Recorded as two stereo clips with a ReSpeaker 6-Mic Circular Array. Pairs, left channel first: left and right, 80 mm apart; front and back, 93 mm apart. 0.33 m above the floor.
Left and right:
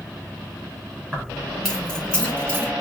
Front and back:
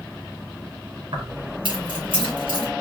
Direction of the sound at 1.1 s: Straight behind.